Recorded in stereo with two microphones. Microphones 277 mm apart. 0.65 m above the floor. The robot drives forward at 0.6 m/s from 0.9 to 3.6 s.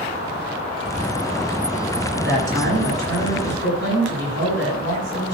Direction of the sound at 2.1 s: 50° right (ahead or behind).